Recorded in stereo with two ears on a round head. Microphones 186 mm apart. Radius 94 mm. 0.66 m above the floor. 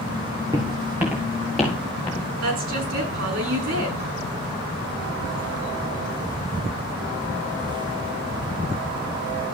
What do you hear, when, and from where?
0.5 s footsteps: 20° right (ahead or behind), 3.5 m; by 2.3 s 10° left (ahead or behind), 5 m
2.4 s a woman speaking: 75° right (ahead or behind), 6 m